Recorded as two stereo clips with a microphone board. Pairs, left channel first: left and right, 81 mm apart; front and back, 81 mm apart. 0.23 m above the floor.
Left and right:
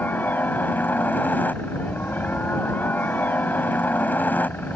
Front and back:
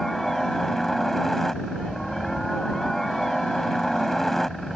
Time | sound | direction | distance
0.0 | a helicopter | 80° left | ?